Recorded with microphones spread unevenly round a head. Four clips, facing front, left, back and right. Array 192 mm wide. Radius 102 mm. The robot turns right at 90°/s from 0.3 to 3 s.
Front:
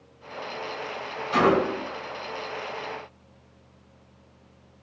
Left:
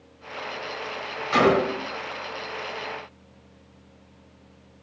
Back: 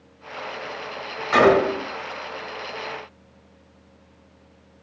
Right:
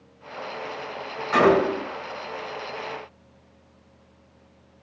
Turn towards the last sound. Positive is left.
turn(degrees=-45)